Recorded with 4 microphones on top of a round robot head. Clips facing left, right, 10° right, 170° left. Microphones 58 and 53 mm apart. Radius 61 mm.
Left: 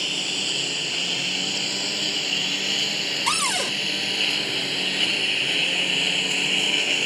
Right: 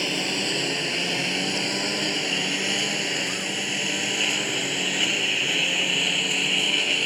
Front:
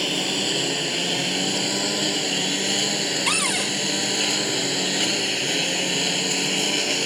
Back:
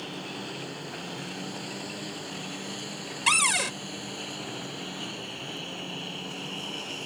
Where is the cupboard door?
85° left.